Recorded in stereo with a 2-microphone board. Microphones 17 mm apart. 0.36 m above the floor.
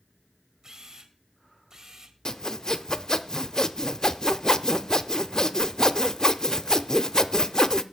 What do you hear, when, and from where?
0.6 s a camera shutter: 40° right (ahead or behind), 1.8 m
2.2 s sawing: 35° left (ahead or behind), 0.6 m